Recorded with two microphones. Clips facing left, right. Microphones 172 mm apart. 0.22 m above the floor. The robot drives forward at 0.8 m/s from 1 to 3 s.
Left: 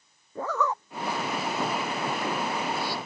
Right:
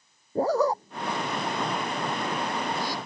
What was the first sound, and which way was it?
A zipper, 35° right (ahead or behind).